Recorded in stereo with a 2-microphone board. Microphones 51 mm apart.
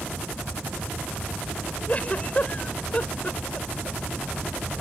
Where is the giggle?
30° left (ahead or behind).